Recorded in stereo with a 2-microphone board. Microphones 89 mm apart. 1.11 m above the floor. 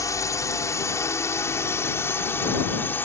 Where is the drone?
35° left (ahead or behind); by 3.1 s 25° left (ahead or behind).